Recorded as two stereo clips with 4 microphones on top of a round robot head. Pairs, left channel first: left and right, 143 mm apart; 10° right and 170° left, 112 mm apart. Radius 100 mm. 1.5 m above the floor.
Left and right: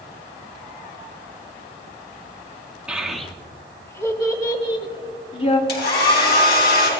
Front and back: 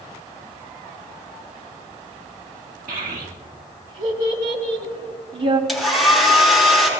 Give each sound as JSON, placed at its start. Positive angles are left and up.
{"t": 2.9, "sound": "a child speaking", "azimuth_deg": -170, "distance_m": 1.8}
{"t": 5.7, "sound": "a hair dryer", "azimuth_deg": 80, "distance_m": 5.0}